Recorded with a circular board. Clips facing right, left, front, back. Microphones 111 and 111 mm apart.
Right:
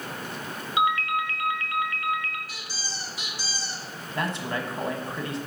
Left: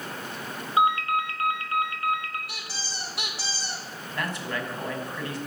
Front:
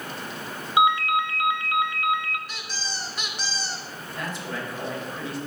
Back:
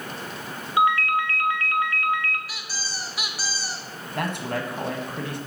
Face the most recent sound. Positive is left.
turn(degrees=-155)